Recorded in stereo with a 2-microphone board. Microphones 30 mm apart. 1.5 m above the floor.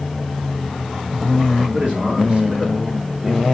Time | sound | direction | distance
1.7 | a man speaking | 35° right (ahead or behind) | 3.5 m